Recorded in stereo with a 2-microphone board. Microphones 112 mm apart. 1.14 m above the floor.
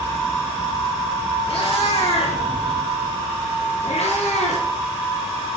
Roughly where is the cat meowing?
Left.